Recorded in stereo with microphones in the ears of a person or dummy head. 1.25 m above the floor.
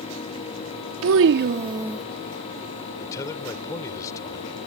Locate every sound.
1.0 s a child speaking: 85° right; by 2.0 s centre (ahead or behind)
3.0 s a man speaking: 15° left (ahead or behind)